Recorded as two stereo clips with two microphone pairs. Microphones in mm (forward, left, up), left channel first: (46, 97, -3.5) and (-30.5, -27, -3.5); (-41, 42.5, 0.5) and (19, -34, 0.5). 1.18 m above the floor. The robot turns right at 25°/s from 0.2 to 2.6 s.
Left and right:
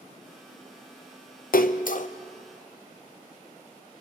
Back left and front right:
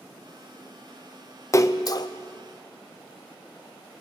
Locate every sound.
1.5 s a splash: 70° left, 0.5 m; by 2.1 s 85° left, 0.5 m